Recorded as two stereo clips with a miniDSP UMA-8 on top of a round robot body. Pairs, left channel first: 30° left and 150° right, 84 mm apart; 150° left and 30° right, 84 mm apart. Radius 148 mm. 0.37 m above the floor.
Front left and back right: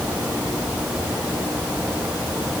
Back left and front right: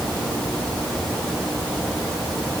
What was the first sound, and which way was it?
Only background noise.